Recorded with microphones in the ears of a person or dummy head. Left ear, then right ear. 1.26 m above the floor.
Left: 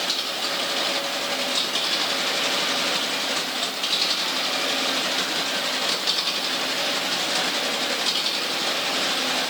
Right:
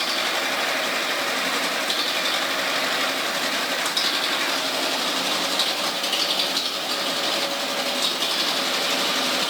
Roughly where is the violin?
I don't hear a violin.